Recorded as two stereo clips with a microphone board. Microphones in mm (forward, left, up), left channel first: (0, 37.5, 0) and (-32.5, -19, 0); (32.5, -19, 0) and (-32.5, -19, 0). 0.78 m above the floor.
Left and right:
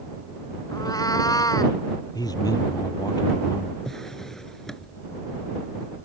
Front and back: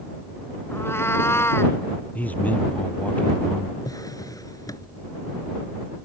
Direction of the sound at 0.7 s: 50° left.